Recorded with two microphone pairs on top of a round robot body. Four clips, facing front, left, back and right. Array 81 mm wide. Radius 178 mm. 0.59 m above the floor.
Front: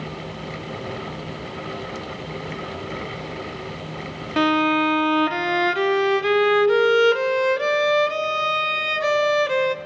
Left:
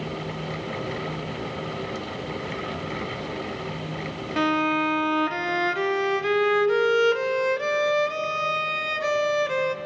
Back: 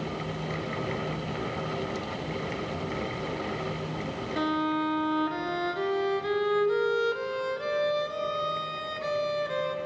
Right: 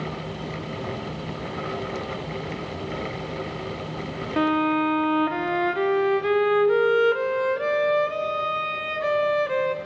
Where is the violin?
5° left, 0.7 m.